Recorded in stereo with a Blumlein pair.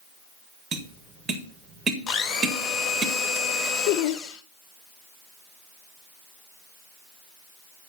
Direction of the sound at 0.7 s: 20° right.